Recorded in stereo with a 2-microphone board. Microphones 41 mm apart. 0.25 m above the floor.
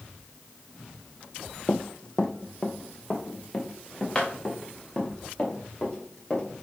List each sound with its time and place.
1.7 s running footsteps: 25° left (ahead or behind), 0.6 m; by 6.6 s 15° left (ahead or behind), 3.5 m